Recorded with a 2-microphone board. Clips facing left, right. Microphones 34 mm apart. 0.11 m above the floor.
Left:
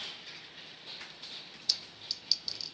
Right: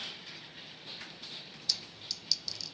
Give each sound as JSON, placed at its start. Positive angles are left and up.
{"t": 1.7, "sound": "a clink", "side_deg": 20, "distance_m": 0.7}